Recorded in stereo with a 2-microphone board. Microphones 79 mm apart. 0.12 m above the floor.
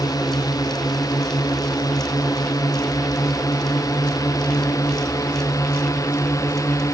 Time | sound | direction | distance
0.0 | a drone | 55° left (ahead or behind) | ?